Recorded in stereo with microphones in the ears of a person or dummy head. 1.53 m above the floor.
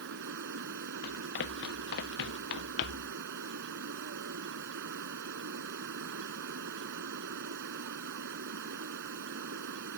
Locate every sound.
0.0 s running water: 60° right (ahead or behind)
1.0 s running footsteps: 60° left (ahead or behind); by 3.1 s 65° left (ahead or behind)